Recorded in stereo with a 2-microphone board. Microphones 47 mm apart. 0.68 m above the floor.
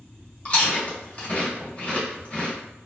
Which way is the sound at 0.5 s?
30° left (ahead or behind).